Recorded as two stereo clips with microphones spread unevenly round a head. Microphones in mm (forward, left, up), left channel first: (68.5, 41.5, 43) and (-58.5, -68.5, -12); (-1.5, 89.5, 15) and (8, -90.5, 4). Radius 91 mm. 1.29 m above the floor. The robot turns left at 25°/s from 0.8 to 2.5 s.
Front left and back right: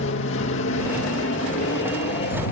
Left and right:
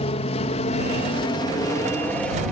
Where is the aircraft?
40° left; by 2.5 s 5° left.